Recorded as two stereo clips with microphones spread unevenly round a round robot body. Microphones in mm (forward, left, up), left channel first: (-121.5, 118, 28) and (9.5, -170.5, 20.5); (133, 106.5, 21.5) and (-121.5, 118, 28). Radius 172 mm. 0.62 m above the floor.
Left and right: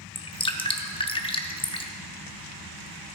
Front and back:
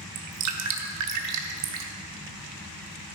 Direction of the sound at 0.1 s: 170° right.